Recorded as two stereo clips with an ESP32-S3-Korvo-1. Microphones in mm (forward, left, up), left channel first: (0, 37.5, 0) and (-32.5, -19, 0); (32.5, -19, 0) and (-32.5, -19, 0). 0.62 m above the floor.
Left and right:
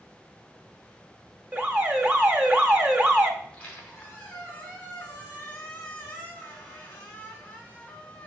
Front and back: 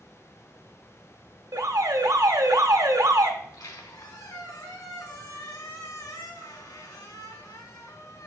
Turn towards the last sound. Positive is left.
turn(degrees=-10)